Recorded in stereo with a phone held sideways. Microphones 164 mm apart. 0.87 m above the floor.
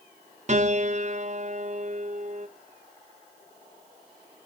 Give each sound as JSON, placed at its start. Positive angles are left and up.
{"t": 0.5, "sound": "a piano", "side_deg": -45, "distance_m": 0.5}